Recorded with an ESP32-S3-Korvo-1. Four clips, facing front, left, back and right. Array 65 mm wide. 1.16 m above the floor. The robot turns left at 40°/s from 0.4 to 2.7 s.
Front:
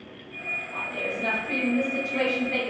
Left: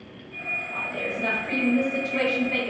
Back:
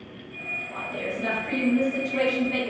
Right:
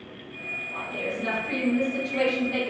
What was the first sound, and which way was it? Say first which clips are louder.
A woman speaking: right 1 dB, back 1 dB; 155° left.